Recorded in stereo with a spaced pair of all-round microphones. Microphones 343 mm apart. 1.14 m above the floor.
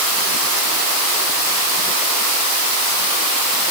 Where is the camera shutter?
No camera shutter in this recording.